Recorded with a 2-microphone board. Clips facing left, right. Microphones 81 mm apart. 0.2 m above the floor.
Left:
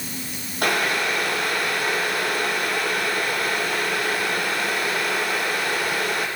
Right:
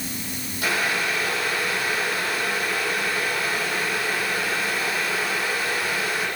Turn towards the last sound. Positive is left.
turn(degrees=55)  # may be behind; listen again after turning